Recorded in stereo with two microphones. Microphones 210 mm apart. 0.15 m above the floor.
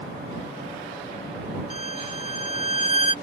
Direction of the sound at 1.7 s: 35° left (ahead or behind).